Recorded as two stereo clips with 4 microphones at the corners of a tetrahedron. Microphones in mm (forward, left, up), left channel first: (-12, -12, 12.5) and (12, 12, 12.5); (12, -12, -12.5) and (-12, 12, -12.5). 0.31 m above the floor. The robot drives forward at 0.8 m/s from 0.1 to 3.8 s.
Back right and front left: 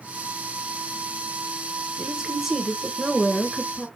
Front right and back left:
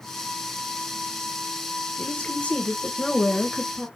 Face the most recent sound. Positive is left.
turn(degrees=-140)